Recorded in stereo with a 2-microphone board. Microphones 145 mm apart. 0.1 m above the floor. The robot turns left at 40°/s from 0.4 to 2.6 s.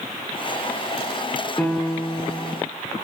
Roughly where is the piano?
Behind.